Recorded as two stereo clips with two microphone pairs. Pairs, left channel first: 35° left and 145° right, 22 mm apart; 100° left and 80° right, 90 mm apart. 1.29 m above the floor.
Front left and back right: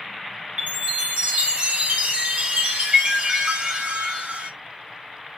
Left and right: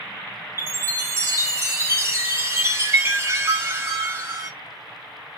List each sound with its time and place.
0.6 s a chime: 135° right, 1.2 m